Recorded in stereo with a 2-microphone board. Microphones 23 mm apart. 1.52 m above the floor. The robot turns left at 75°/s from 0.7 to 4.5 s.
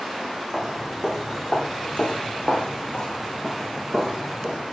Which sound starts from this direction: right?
Footsteps, at 0.5 s.